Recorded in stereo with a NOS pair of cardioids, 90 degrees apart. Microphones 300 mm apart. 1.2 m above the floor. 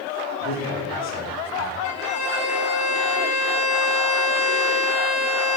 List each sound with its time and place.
0.4 s a man speaking: 65° left, 3 m
1.8 s a violin: 60° left, 2 m